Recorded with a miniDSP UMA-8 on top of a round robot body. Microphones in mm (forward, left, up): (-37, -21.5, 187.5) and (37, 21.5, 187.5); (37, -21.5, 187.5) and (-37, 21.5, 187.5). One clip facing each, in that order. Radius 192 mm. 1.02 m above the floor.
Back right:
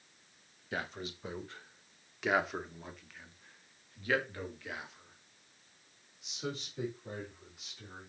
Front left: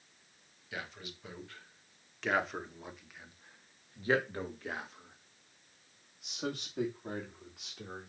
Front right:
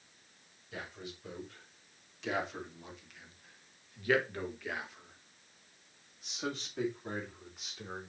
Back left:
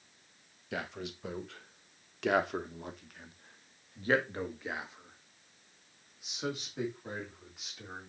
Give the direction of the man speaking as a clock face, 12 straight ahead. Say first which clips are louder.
Back right 5 dB, back left 6 dB; 7 o'clock.